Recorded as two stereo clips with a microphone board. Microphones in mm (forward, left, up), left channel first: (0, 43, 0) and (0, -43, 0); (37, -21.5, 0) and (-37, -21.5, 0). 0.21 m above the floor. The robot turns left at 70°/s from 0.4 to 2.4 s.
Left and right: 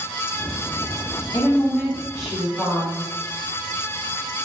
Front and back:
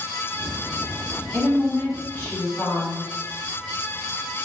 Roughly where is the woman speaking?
Ahead left.